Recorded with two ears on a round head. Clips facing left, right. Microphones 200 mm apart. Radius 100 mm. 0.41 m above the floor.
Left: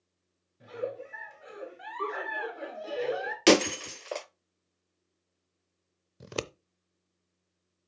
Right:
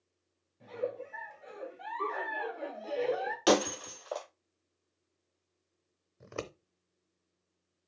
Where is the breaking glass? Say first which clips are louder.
Left 5 dB; 35° left (ahead or behind), 0.6 m.